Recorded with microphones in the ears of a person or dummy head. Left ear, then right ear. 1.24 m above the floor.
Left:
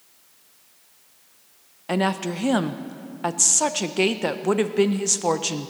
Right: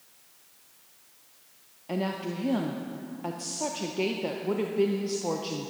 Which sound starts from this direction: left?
A woman speaking, at 1.9 s.